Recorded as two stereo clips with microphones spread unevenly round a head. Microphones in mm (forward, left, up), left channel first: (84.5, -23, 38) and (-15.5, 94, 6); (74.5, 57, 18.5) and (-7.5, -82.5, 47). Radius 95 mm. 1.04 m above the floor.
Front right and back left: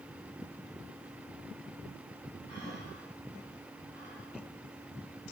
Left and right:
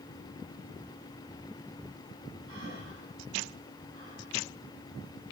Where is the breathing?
130° right, 6.5 m.